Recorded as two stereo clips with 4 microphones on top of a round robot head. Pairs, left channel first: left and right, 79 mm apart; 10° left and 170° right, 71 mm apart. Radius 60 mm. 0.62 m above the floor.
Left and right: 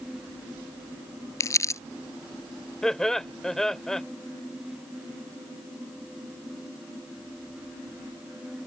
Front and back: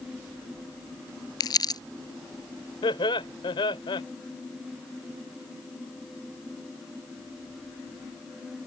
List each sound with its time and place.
1.4 s crumpling: 40° left
2.8 s laughter: 5° left